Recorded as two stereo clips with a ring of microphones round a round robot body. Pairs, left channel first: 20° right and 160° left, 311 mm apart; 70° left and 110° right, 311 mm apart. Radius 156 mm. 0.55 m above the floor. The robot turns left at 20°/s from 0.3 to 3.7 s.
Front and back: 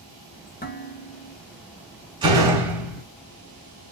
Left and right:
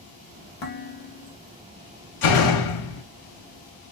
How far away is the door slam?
About 1.0 m.